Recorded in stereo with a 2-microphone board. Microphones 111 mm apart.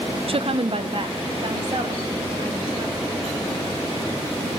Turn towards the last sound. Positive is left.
turn(degrees=-50)  # may be behind; listen again after turning